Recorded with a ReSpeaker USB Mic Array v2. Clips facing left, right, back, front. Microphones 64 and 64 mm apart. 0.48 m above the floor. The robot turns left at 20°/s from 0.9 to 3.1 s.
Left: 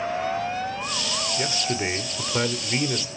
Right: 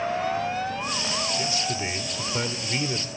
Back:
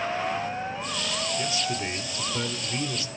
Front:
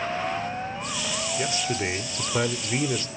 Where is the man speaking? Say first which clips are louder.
Left 2 dB, front 2 dB; 50° left, 1.4 m; by 3.1 s 15° left, 1.4 m.